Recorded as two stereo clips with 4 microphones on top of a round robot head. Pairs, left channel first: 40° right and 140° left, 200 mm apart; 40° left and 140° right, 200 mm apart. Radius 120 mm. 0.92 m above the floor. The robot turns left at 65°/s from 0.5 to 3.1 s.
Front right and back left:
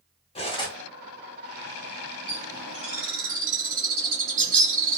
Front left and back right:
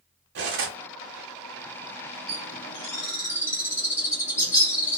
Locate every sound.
0.3 s cutlery clinking: 105° right, 0.6 m; by 0.8 s 125° right, 0.6 m
2.3 s a bird: 175° left, 1.3 m; by 5.0 s 120° left, 1.3 m